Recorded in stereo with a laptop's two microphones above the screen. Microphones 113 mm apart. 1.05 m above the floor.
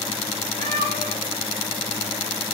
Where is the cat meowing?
75° right (ahead or behind), 4.5 m; by 2.5 s 60° right (ahead or behind), 4 m.